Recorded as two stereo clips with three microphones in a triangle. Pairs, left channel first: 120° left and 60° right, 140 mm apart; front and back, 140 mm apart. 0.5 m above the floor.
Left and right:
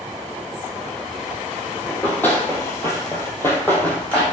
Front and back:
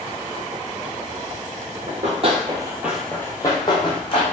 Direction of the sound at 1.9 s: 165° right.